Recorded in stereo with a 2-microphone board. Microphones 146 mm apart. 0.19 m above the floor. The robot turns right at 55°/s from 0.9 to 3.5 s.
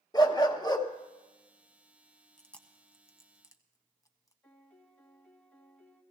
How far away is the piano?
About 1.3 m.